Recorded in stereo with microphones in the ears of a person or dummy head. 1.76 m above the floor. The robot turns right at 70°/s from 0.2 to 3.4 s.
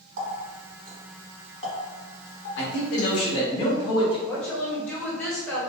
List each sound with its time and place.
0.2 s a running tap: 55° right (ahead or behind), 1.9 m; by 3.2 s 30° left (ahead or behind), 1.9 m
2.6 s a man speaking: 90° left, 1.4 m; by 4.2 s 150° left, 1.4 m
4.3 s a woman speaking: 5° left (ahead or behind), 1.0 m